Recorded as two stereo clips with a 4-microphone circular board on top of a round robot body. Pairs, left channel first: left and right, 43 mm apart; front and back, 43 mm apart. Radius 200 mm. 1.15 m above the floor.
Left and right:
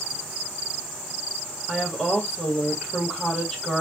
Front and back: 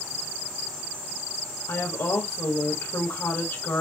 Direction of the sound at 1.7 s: 5° right.